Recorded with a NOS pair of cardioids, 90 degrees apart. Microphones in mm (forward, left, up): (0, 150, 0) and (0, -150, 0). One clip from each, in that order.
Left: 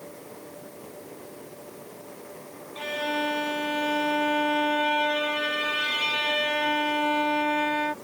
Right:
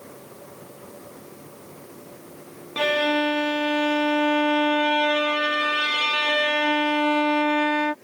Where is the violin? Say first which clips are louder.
Right 7 dB; 55° right.